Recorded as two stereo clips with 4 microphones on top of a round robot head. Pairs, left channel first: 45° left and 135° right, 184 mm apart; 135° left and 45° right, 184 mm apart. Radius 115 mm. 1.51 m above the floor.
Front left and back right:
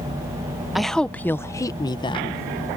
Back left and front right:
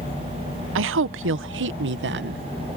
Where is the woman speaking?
45° right; by 2.4 s 15° right.